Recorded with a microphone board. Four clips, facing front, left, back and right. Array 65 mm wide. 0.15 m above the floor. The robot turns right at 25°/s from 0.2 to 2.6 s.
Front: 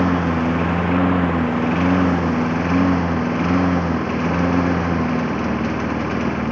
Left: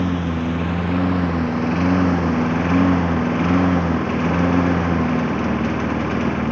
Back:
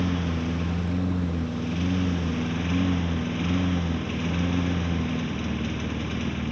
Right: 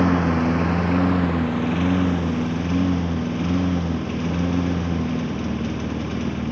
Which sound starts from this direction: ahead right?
A lawn mower, at 0.0 s.